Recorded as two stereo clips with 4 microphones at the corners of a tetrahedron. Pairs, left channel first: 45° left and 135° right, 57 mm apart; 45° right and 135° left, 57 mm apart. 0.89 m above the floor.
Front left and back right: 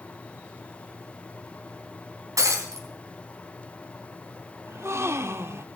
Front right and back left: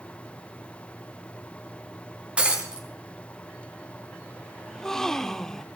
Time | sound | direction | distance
2.4 | breaking glass | 155° right | 3.5 m
4.7 | a gasp | 125° right | 0.6 m